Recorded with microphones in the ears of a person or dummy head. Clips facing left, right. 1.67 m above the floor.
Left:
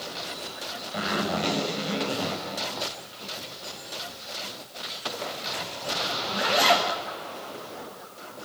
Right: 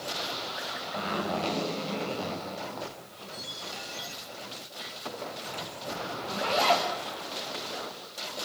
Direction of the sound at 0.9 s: 20° left (ahead or behind).